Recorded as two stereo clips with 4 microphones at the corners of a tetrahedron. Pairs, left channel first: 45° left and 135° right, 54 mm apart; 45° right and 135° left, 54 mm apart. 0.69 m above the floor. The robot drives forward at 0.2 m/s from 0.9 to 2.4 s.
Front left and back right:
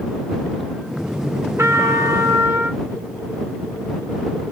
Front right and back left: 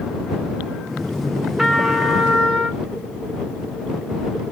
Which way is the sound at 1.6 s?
145° right.